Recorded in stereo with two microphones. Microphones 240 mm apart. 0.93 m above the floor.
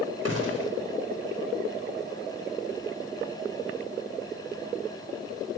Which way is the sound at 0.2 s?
80° right.